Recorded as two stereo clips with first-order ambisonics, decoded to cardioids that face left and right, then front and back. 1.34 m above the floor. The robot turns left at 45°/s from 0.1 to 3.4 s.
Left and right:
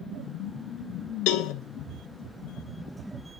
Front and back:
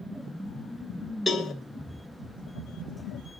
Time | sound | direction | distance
1.3 | a cowbell | 80° left | 1.1 m